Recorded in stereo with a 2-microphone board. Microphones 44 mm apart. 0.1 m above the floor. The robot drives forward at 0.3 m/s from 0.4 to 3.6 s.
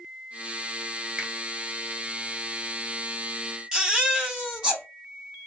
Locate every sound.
1.2 s a finger snap: 25° right (ahead or behind), 1.1 m
3.7 s a baby crying: 15° right (ahead or behind), 1.8 m